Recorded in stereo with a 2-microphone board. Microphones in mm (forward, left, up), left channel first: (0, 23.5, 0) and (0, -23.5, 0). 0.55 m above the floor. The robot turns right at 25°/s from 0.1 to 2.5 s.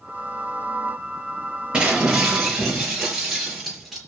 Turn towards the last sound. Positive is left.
turn(degrees=0)  # may be behind; listen again after turning